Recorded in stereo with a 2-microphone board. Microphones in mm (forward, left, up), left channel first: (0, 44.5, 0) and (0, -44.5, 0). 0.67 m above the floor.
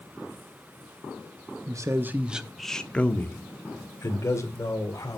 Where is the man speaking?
45° right (ahead or behind), 0.8 m; by 5.2 s 40° left (ahead or behind), 2.5 m.